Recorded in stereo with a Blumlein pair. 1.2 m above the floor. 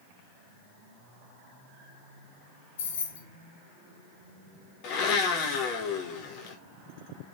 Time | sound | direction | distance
2.8 | keys jangling | 60° left | 1.0 m
4.8 | a blender | 40° left | 1.4 m